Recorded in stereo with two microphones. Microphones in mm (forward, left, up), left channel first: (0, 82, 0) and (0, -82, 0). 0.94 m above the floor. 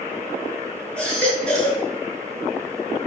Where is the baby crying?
5° left (ahead or behind), 6 m.